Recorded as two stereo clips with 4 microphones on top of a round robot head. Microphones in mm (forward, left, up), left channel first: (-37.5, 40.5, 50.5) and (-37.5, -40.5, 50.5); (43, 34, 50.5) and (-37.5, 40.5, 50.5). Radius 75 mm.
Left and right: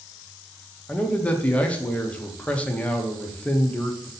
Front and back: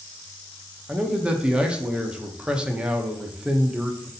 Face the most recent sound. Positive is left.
turn(degrees=125)